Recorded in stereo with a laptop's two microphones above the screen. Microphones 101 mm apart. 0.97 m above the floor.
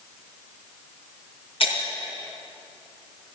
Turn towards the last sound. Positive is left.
turn(degrees=70)  # may be behind; listen again after turning